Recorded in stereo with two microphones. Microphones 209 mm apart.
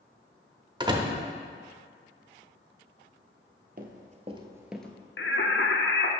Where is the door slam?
20° right (ahead or behind), 0.7 m.